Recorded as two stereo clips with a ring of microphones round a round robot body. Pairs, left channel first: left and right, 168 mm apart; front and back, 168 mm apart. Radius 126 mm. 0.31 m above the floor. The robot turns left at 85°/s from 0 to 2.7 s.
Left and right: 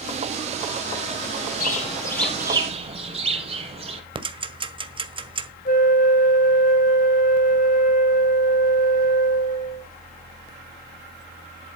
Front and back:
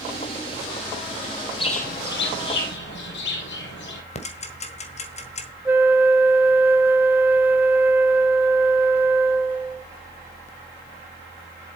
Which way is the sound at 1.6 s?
60° left.